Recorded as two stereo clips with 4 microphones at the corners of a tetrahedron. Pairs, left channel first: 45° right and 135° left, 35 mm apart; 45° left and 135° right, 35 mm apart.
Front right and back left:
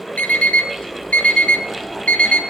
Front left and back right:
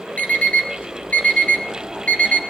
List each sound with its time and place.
0.2 s an alarm clock: straight ahead, 1.7 m